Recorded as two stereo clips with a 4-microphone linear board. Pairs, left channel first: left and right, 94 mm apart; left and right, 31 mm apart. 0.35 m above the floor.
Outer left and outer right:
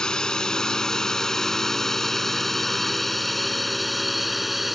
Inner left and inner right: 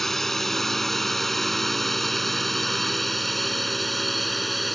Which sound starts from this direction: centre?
A drone, at 0.0 s.